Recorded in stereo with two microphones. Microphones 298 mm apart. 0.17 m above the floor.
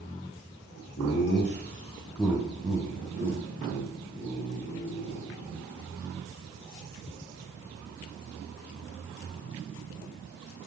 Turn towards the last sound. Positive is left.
turn(degrees=-55)  # may be behind; listen again after turning